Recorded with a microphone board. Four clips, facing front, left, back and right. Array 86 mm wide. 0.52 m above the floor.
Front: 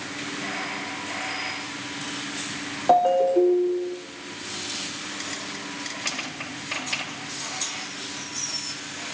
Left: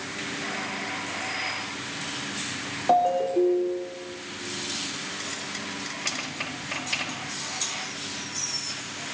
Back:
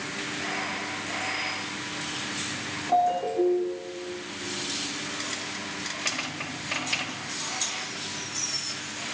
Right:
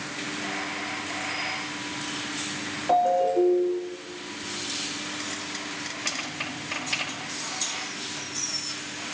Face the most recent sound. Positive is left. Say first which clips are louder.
# even, front 6 dB
turn(degrees=25)